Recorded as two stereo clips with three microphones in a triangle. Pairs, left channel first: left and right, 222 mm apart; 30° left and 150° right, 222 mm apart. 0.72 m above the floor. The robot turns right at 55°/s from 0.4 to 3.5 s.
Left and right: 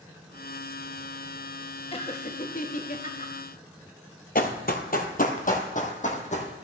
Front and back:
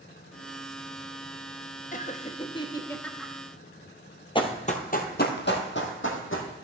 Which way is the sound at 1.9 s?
45° left.